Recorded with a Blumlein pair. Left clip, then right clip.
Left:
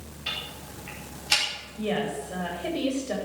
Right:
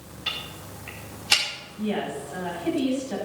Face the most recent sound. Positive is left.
turn(degrees=45)